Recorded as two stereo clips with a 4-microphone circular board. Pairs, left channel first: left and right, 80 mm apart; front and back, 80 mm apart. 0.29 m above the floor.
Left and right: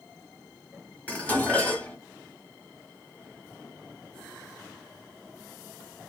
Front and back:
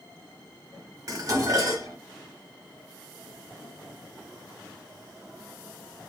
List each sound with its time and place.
1.1 s dishes clattering: 155° left, 1.1 m